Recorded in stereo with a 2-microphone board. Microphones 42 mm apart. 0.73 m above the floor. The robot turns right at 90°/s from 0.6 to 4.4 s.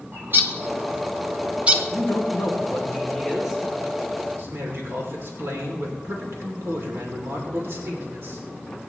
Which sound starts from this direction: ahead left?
A man speaking, at 1.9 s.